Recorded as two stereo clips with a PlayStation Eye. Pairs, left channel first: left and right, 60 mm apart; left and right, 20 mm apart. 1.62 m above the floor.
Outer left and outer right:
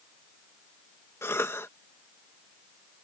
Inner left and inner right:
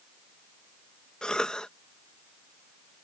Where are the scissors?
No scissors in this recording.